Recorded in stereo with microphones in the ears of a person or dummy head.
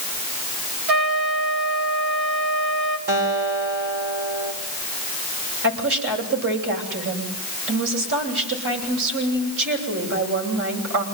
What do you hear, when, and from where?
0.9 s a trumpet: 55° right (ahead or behind), 4 m
3.1 s a guitar: 50° right (ahead or behind), 4.5 m
5.6 s a woman speaking: 70° right (ahead or behind), 9 m